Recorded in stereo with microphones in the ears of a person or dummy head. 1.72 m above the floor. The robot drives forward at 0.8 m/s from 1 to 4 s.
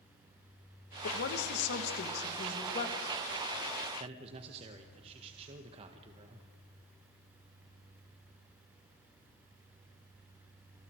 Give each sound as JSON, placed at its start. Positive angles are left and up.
{"t": 1.0, "sound": "a woman speaking", "side_deg": 70, "distance_m": 2.0}
{"t": 4.0, "sound": "a man speaking", "side_deg": -40, "distance_m": 1.7}